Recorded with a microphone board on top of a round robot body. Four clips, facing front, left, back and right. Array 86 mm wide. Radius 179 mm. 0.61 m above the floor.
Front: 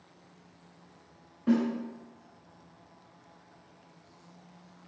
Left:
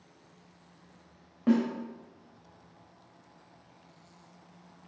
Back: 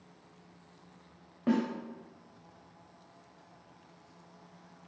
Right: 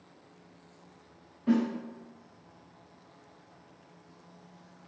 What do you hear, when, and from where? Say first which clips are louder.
1.5 s a snare drum: left 1 dB, front 3 dB; 135° left, 0.5 m